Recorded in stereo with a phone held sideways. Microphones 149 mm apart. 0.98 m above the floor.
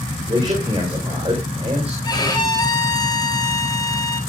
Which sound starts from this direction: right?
A man speaking, at 0.3 s.